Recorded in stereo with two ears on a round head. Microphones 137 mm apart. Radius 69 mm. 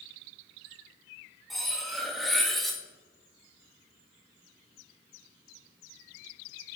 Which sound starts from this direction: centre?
Cutlery clinking, at 1.5 s.